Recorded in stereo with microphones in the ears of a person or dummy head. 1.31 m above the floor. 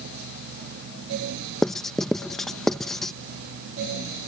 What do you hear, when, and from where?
1.6 s writing: centre (ahead or behind)